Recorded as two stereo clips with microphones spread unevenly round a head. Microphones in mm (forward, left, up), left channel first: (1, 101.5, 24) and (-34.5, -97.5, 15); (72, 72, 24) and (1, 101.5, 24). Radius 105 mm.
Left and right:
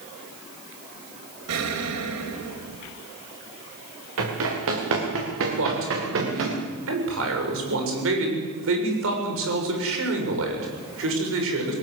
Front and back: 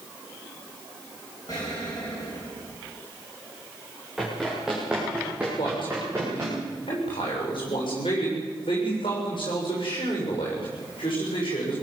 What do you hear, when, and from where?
1.5 s an explosion: 95° right, 3 m
4.2 s running footsteps: 115° right, 8.5 m; by 6.6 s 125° right, 7 m
5.6 s a man speaking: 75° right, 7 m